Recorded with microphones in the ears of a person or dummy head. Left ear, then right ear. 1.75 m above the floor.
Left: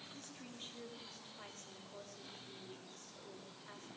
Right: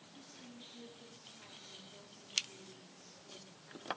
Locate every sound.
0.1 s a woman speaking: 35° left (ahead or behind), 5 m